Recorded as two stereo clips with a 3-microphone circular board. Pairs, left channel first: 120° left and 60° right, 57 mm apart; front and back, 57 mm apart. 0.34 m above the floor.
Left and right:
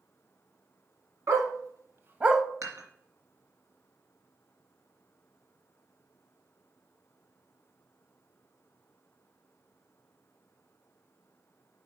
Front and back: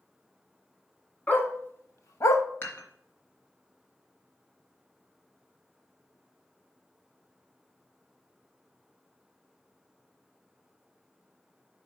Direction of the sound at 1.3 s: 60° right.